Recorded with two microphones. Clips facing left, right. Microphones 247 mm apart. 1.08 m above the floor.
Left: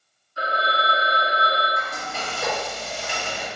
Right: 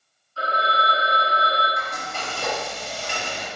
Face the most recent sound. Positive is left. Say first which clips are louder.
# left 1 dB
turn(degrees=5)  # may be behind; listen again after turning